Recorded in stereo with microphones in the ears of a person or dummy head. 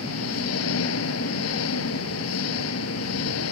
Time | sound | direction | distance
0.0 | an engine running | 80° left | ?